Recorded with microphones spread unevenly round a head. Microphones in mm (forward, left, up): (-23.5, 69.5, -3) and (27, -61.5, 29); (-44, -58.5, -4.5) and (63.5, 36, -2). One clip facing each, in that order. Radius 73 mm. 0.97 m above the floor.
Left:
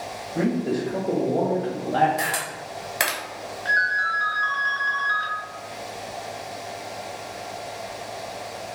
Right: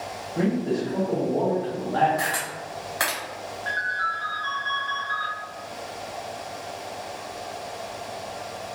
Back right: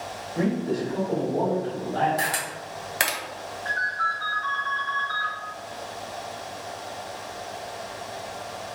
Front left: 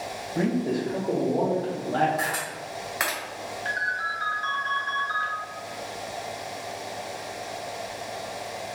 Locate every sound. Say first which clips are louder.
0.3 s a man speaking: left 1 dB, even; 85° left, 1.5 m; by 2.1 s 65° left, 0.5 m
2.2 s a camera shutter: even, back right 1 dB; 175° right, 0.8 m
3.6 s a ringtone: left 5 dB, back right 2 dB; 100° left, 1.5 m